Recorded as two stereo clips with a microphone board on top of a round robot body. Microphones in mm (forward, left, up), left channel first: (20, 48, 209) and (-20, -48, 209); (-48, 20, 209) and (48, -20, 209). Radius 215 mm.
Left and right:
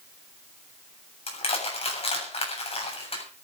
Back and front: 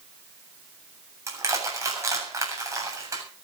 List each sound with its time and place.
1.3 s crushing: 40° left, 7.5 m